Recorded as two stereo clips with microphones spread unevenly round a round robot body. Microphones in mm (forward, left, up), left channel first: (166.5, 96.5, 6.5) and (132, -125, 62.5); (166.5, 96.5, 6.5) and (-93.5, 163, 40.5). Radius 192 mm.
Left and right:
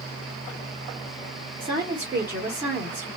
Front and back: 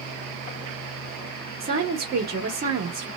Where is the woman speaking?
160° left, 0.9 m.